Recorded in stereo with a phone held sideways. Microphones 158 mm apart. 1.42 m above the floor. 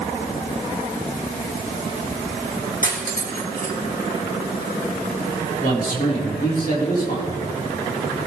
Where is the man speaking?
70° left (ahead or behind), 4.5 m.